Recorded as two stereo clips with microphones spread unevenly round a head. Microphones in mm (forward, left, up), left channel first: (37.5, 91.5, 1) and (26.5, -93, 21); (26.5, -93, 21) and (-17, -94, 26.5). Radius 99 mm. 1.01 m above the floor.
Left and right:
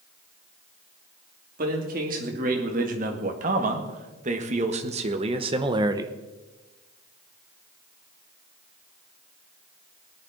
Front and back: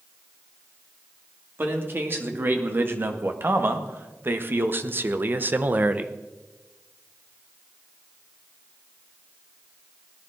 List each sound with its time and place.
1.6 s a man speaking: 145° right, 2.5 m; by 6.1 s 160° right, 0.8 m